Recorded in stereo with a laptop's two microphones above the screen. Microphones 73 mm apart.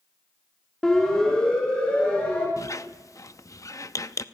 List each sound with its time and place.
0.8 s a siren: 5° left (ahead or behind), 3.5 m; by 2.5 s 15° left (ahead or behind), 6 m
2.6 s a squeak: 50° left (ahead or behind), 0.8 m